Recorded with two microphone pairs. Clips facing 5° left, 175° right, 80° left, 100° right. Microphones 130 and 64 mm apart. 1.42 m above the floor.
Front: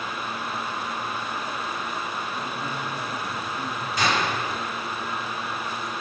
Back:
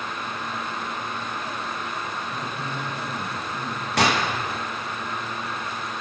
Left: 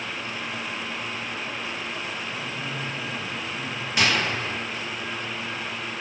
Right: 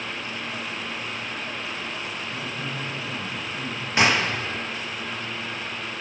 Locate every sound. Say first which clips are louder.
2.3 s a man speaking: even, even; 155° right, 9 m; by 3.9 s 160° right, 8.5 m
4.0 s a gunshot: back 3 dB, right 3 dB; 160° right, 2.5 m